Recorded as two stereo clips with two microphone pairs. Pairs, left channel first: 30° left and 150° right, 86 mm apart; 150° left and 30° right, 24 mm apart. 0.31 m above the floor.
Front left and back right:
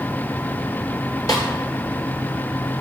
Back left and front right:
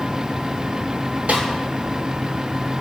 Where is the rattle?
I don't hear a rattle.